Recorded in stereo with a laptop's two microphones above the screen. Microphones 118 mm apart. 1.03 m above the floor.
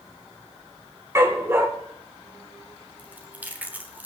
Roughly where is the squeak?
I don't hear a squeak.